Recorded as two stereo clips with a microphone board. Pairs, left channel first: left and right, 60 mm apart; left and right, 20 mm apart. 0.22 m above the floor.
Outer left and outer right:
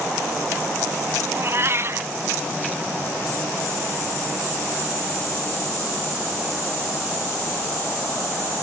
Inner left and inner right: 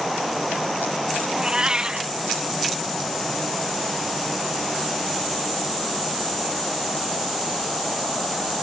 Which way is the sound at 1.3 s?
45° right (ahead or behind).